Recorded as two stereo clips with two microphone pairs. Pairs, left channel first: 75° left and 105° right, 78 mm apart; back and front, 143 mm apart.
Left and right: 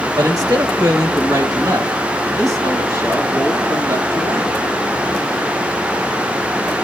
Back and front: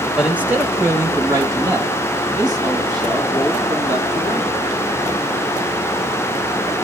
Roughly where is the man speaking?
Right.